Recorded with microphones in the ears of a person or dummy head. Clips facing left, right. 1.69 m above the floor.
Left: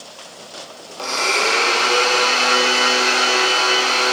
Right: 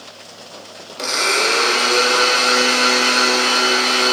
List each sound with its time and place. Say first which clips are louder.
1.0 s a blender: right 1 dB; 30° right (ahead or behind), 0.6 m